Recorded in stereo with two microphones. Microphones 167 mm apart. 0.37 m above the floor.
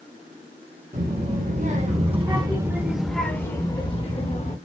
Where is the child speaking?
55° right (ahead or behind), 1.5 m; by 4.6 s 40° left (ahead or behind), 1.3 m.